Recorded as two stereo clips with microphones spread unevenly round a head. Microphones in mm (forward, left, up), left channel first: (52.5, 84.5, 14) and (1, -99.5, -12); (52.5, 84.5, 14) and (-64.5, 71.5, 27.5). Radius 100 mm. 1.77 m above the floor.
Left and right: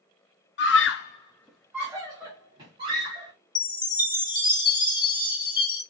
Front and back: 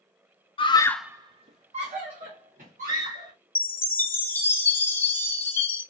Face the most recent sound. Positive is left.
turn(degrees=70)